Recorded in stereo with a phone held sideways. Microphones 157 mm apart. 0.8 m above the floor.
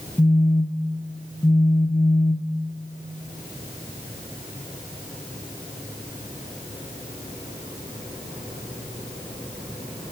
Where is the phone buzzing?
10° left (ahead or behind), 0.8 m.